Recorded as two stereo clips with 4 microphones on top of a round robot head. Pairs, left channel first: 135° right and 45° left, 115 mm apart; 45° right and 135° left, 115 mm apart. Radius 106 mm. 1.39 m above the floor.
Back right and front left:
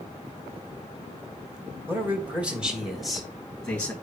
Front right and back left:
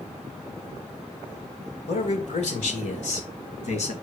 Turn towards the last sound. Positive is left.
turn(degrees=-60)